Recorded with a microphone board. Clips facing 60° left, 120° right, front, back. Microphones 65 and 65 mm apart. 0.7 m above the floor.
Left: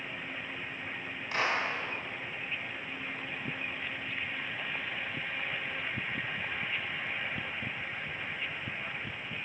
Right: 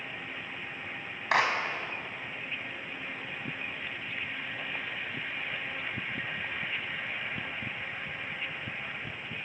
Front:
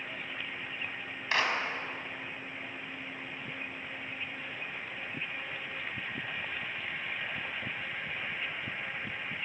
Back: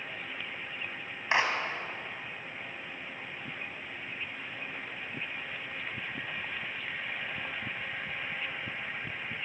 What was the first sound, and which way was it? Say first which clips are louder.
A clap: right 5 dB, back 2 dB; 110° right.